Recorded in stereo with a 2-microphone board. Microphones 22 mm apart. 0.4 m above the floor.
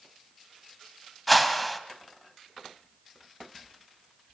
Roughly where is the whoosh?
Centre.